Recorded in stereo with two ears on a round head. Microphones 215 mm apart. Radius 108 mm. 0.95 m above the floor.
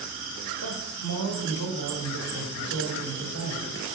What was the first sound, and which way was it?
A man speaking, 65° right (ahead or behind).